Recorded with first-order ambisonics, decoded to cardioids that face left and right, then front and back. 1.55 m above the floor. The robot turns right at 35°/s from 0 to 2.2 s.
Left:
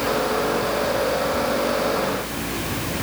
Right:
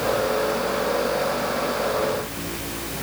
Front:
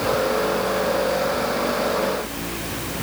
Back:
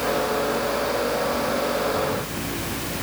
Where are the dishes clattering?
No dishes clattering in this recording.